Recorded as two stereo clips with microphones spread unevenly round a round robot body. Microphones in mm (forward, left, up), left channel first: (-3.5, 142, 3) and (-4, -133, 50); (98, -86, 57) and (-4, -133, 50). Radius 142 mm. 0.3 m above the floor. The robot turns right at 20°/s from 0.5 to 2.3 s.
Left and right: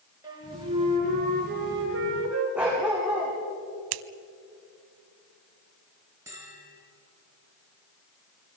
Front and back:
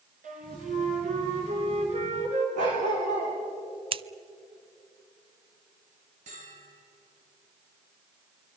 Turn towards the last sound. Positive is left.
turn(degrees=-170)